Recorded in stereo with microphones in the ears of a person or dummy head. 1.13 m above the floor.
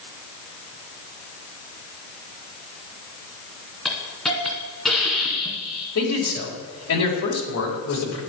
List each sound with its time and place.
3.9 s a hiss: 5° right (ahead or behind), 2 m
6.0 s a man speaking: 85° left, 3.5 m